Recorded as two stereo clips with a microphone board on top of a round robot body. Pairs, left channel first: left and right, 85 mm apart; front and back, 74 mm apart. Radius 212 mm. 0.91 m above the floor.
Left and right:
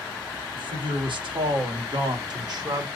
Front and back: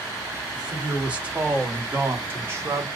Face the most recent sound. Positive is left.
turn(degrees=-135)